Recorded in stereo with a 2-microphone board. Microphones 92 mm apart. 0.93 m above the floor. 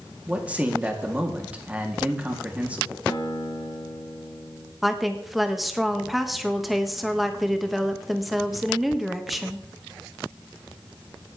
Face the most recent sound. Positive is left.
turn(degrees=0)  # may be behind; listen again after turning